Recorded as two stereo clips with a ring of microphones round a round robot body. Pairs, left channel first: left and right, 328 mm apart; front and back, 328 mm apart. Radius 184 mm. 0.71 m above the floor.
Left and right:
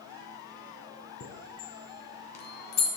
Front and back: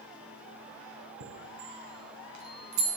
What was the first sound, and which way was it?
A chime, 135° left.